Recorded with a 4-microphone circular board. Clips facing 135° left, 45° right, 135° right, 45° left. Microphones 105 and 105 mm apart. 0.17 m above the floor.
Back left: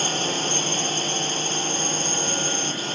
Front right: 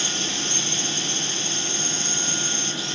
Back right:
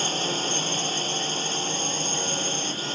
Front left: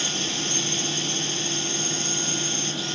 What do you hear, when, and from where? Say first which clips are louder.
0.0 s a drone: back left 5 dB, back right 3 dB; straight behind